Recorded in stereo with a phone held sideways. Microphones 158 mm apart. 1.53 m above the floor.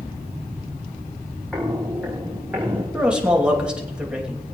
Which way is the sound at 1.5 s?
Centre (ahead or behind).